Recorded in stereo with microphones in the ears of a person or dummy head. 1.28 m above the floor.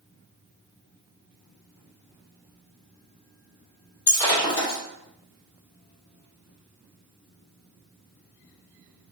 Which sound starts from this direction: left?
Breaking glass, at 4.1 s.